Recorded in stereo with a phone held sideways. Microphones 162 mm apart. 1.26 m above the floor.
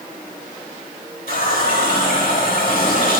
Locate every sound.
1.3 s a running tap: 75° left (ahead or behind), 4.5 m